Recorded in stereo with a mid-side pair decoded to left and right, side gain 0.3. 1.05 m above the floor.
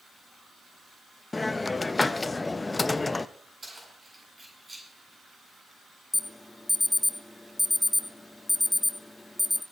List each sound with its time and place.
1.3 s a hiss: 35° left, 0.6 m
3.6 s keys jangling: 35° right, 9 m
6.1 s an alarm: 25° left, 1.4 m